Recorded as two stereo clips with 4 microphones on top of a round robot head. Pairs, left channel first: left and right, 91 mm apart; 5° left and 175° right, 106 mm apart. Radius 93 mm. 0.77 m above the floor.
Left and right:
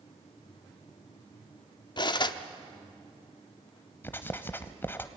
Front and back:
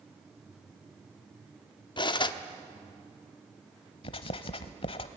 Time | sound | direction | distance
2.0 | cutlery clinking | 50° left | 1.0 m
4.0 | writing | 30° left | 0.8 m